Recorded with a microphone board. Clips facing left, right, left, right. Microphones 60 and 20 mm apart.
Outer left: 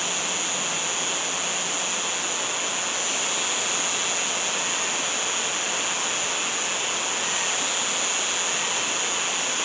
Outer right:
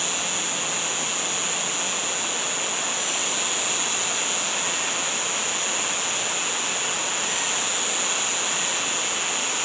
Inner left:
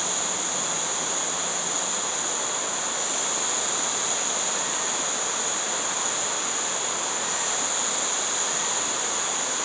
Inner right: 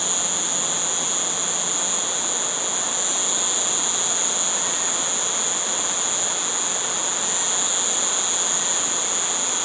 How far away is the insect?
About 6 m.